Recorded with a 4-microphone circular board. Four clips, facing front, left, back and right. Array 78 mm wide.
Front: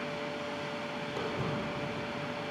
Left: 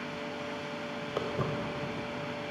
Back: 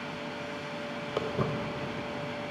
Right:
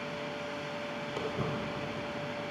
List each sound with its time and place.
1.2 s footsteps: 165° left, 1.2 m; by 2.3 s 170° right, 2.5 m